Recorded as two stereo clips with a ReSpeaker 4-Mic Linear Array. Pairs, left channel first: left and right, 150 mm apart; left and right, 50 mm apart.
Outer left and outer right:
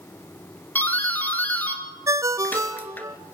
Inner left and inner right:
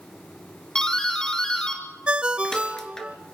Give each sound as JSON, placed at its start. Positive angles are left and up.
{"t": 0.8, "sound": "a doorbell", "side_deg": 10, "distance_m": 1.9}
{"t": 2.1, "sound": "a ringtone", "side_deg": -25, "distance_m": 0.8}